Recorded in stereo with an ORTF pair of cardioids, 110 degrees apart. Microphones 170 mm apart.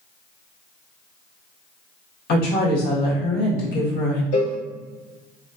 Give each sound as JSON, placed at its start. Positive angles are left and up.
{"t": 2.3, "sound": "a woman speaking", "azimuth_deg": 70, "distance_m": 1.3}
{"t": 4.3, "sound": "a cowbell", "azimuth_deg": 60, "distance_m": 0.8}